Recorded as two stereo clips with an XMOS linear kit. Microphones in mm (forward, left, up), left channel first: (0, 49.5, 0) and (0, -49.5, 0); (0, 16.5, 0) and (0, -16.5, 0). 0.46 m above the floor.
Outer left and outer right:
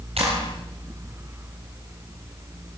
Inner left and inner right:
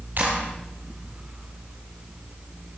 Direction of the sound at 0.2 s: 80° right.